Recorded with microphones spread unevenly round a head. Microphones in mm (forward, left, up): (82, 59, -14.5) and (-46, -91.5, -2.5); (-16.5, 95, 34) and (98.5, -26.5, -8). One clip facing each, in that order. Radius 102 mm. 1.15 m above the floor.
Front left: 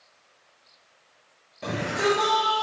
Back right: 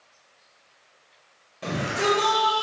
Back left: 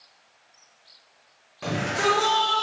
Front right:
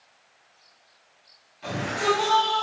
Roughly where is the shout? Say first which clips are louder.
Even, back left 1 dB; behind left.